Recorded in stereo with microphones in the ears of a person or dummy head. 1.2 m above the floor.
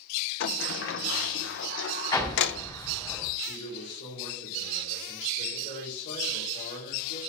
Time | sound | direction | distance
0.4 | a sliding door | 65° left (ahead or behind) | 0.6 m
2.1 | an explosion | 20° left (ahead or behind) | 3.5 m
3.5 | a man speaking | 60° left (ahead or behind) | 3.5 m